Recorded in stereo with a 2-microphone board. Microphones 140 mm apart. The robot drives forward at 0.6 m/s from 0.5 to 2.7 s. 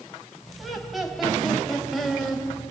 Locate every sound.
0.6 s laughter: centre (ahead or behind), 3.5 m